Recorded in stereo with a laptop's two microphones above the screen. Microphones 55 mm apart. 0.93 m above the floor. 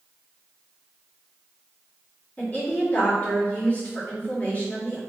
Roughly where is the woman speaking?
Left.